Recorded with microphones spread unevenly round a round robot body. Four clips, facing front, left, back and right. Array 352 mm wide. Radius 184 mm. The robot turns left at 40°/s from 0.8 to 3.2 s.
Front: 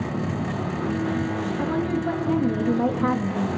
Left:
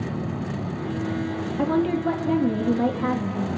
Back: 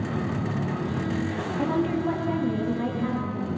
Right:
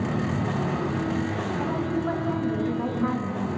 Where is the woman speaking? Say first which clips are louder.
Left 7 dB, back 1 dB; 95° left, 1.7 m; by 3.5 s 30° left, 1.7 m.